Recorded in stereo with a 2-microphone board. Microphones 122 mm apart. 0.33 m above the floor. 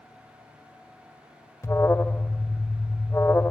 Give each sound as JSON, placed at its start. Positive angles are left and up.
{"t": 1.6, "sound": "an alarm", "side_deg": 25, "distance_m": 0.8}